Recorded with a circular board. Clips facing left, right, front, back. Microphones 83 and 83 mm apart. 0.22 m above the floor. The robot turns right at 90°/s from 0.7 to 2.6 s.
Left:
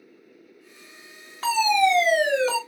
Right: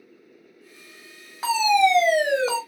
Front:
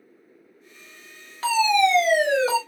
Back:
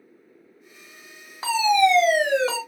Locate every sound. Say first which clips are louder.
1.4 s a fire alarm: right 1 dB, back 1 dB; 145° right, 1.9 m; by 2.6 s 40° right, 1.9 m